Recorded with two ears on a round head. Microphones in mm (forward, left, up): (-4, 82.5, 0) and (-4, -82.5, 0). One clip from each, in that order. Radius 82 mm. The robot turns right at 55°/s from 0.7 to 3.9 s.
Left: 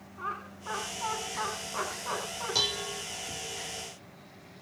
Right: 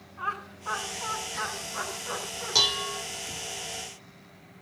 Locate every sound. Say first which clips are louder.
0.2 s laughter: right 4 dB; 20° right (ahead or behind), 5 m; by 2.5 s 70° left (ahead or behind), 5 m
2.5 s dishes clattering: right 6 dB; 30° right (ahead or behind), 0.8 m; by 3.0 s 20° right (ahead or behind), 0.8 m